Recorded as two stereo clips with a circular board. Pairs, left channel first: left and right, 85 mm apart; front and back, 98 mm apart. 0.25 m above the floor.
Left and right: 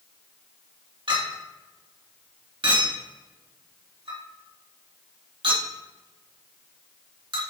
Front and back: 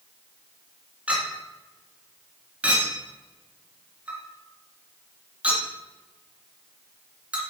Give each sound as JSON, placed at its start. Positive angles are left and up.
{"t": 1.1, "sound": "a clink", "azimuth_deg": -105, "distance_m": 2.0}